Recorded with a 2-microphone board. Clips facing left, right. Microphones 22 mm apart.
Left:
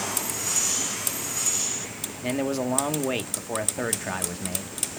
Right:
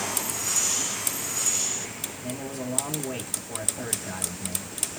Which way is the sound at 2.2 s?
55° left (ahead or behind).